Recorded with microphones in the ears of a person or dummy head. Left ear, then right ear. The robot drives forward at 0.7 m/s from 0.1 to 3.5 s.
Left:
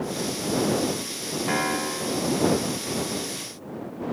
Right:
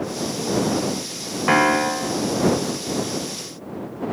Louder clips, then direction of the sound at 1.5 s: Right 10 dB; 35° right (ahead or behind).